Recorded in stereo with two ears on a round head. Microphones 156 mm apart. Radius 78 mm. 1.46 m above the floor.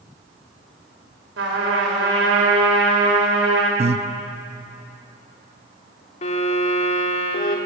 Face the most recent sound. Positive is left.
turn(degrees=40)  # may be behind; listen again after turning